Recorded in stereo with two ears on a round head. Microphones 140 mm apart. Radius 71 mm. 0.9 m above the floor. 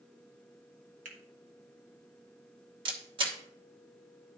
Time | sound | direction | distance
1.1 | a finger snap | 50° right (ahead or behind) | 1.6 m
2.9 | a camera shutter | 30° right (ahead or behind) | 1.2 m